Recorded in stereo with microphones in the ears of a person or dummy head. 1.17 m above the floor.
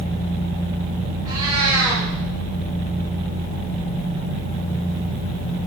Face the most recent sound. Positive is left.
turn(degrees=-15)  # may be behind; listen again after turning